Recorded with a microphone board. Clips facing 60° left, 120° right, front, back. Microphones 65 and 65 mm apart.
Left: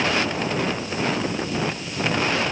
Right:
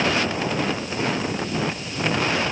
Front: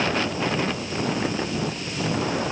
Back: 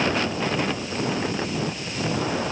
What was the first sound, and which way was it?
Only background noise.